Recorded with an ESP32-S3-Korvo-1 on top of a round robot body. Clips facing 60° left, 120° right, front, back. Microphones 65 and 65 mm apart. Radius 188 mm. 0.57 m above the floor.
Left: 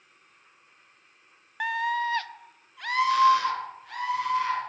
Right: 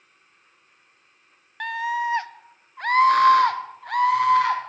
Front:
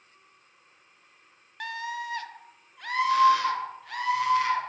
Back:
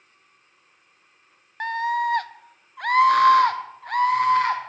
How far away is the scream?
About 0.8 m.